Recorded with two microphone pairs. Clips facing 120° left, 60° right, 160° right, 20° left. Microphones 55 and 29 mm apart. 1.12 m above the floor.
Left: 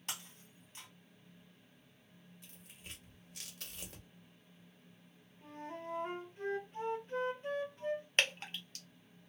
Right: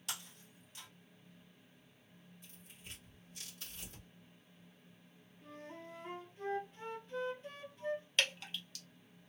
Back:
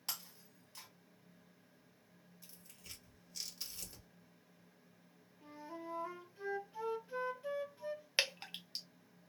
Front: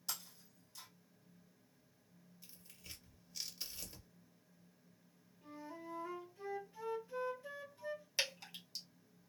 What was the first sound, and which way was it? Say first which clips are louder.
Breaking glass: even, even; 165° left.